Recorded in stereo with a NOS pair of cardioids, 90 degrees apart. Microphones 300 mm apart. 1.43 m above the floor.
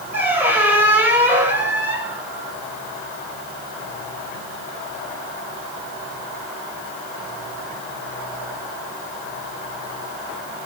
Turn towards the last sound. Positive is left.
turn(degrees=-5)